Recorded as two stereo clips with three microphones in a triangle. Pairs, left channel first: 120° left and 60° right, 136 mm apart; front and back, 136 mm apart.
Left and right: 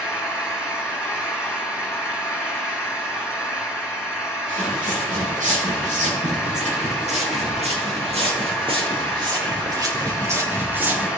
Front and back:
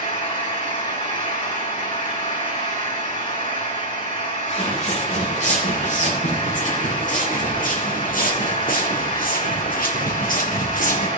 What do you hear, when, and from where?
0.0 s an engine running: 25° left, 5 m
4.5 s footsteps: 35° right, 5.5 m; by 11.1 s 20° left, 3 m